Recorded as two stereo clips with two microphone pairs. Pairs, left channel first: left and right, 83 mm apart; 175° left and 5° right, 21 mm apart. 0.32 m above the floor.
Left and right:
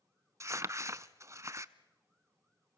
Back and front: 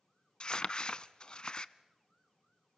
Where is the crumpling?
145° right, 0.5 m.